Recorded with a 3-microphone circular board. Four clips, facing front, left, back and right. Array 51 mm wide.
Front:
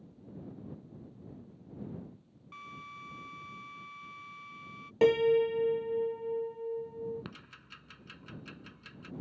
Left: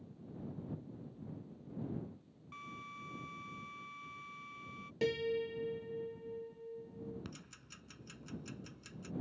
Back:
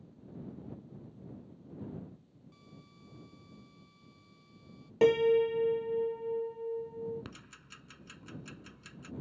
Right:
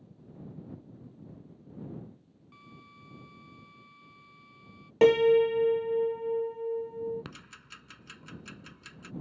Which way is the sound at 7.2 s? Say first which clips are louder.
Right 5 dB, front 2 dB; 75° right.